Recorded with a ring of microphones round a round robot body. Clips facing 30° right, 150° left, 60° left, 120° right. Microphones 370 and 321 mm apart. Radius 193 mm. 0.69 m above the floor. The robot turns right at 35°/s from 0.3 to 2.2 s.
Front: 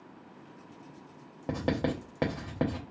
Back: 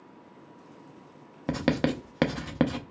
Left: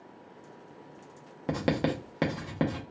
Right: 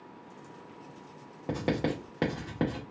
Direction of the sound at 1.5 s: 115° left.